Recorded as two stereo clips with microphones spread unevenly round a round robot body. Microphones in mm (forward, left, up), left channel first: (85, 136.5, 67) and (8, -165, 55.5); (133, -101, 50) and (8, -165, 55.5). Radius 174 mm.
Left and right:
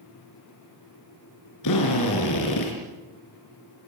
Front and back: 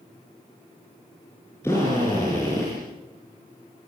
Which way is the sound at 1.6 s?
110° left.